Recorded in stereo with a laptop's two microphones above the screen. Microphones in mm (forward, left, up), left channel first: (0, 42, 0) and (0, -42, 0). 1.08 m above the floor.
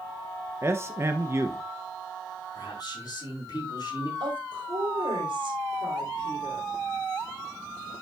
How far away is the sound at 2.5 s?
About 5.5 m.